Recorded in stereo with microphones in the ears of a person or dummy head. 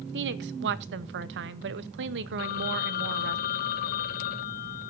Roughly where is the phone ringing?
Left.